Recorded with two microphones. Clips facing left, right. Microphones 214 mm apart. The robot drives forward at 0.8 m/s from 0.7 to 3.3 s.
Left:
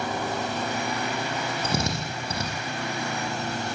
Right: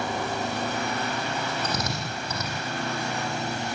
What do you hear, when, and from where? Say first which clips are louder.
1.6 s a drill: left 2 dB; 25° left (ahead or behind), 9 m; by 2.5 s 30° left (ahead or behind), 8 m